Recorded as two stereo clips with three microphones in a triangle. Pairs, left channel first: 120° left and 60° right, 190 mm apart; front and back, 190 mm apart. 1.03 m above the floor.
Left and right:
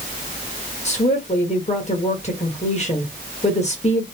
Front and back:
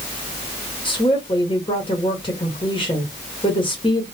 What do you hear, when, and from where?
0.8 s a woman speaking: 65° left, 1.1 m